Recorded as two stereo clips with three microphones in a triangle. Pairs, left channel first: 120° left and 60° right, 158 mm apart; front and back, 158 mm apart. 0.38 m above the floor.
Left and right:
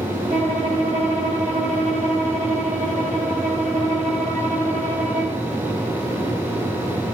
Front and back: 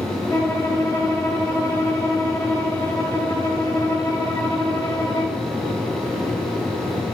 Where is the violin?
65° right, 2 m.